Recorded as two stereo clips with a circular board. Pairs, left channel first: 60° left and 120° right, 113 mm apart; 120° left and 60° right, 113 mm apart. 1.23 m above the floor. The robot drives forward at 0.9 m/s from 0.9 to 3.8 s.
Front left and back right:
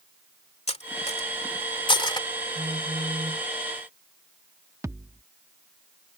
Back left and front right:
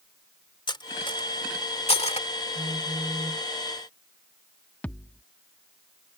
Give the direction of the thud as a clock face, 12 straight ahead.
6 o'clock.